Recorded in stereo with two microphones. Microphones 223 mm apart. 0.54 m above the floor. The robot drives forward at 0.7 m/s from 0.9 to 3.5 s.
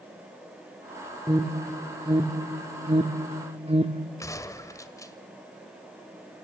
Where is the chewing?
I don't hear chewing.